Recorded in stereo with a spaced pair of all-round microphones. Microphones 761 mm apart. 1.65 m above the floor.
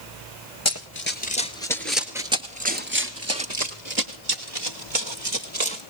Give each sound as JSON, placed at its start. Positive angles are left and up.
{"t": 0.7, "sound": "running footsteps", "side_deg": 20, "distance_m": 1.7}